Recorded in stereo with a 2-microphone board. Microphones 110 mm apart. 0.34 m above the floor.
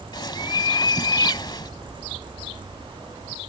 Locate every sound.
0.1 s a bird: 40° left (ahead or behind)